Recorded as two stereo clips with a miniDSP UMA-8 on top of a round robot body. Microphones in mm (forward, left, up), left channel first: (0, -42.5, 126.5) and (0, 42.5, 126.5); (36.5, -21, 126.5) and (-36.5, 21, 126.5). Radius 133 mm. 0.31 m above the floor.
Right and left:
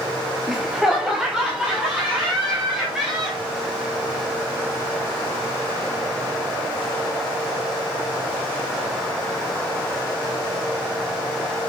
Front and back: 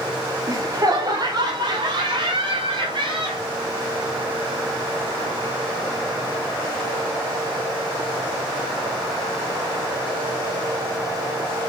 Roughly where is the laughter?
Behind.